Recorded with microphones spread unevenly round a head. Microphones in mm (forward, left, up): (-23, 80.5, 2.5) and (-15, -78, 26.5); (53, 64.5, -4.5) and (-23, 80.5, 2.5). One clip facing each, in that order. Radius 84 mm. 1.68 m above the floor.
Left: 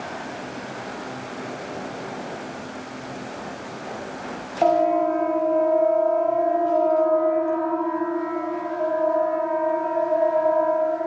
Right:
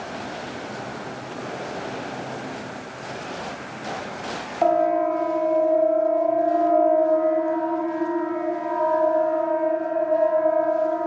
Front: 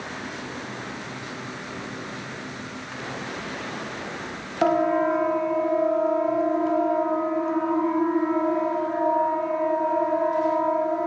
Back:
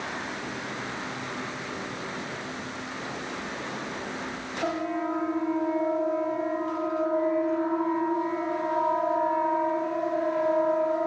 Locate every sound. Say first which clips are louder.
4.6 s a siren: left 1 dB, front 9 dB; 5° left, 2 m; by 11.1 s 30° right, 5 m